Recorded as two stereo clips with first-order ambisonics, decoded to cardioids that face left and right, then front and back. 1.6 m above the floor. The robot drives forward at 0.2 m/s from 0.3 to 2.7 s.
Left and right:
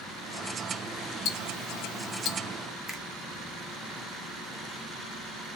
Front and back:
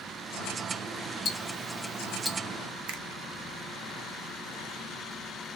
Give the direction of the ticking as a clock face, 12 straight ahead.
10 o'clock.